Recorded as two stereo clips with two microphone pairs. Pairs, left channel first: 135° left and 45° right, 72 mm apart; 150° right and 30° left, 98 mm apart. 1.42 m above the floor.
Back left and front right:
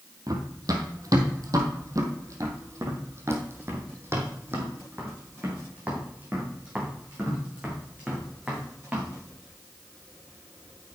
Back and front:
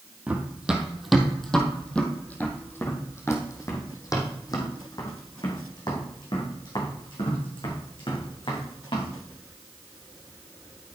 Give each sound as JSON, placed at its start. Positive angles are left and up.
{"t": 0.3, "sound": "running footsteps", "azimuth_deg": -45, "distance_m": 2.5}